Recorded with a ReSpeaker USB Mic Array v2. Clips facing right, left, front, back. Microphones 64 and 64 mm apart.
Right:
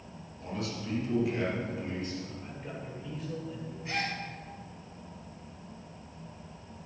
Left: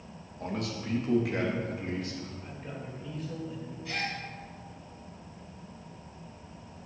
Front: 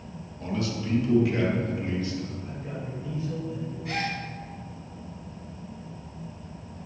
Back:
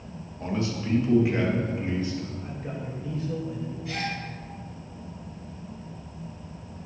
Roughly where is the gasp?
Ahead right.